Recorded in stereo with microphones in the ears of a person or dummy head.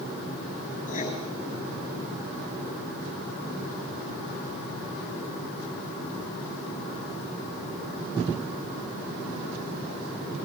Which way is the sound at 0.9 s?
40° left (ahead or behind).